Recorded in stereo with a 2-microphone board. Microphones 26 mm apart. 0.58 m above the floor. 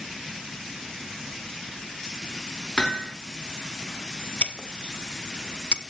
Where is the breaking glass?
55° left (ahead or behind), 1.0 m.